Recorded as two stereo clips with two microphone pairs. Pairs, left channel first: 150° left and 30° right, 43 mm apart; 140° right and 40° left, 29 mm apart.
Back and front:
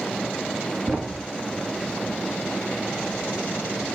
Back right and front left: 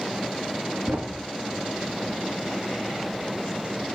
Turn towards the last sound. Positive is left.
turn(degrees=40)